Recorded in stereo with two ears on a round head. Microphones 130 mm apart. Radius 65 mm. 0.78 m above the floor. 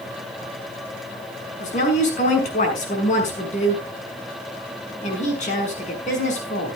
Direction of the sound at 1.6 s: 50° left (ahead or behind).